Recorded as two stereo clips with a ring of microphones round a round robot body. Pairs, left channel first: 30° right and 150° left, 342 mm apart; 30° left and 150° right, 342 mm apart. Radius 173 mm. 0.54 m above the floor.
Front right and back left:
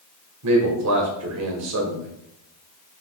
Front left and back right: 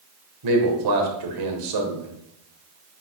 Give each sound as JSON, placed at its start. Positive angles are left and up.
{"t": 0.4, "sound": "a man speaking", "azimuth_deg": -170, "distance_m": 1.9}